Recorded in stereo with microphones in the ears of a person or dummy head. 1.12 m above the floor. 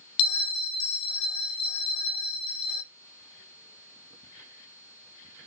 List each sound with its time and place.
0.2 s a bell: 60° left (ahead or behind), 0.5 m